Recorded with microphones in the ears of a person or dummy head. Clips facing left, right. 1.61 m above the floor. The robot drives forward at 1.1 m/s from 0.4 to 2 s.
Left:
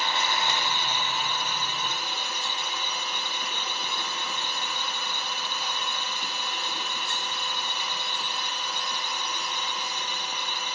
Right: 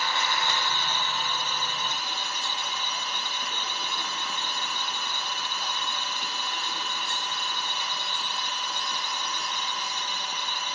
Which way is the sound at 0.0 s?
20° left (ahead or behind).